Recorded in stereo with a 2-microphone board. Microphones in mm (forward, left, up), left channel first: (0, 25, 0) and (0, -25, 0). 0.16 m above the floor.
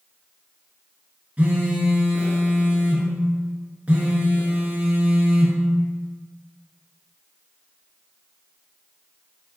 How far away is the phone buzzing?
About 1.1 m.